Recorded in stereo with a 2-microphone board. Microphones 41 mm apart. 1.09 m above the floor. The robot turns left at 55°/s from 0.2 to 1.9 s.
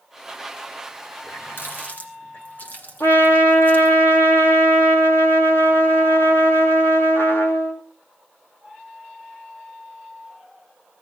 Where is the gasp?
I don't hear a gasp.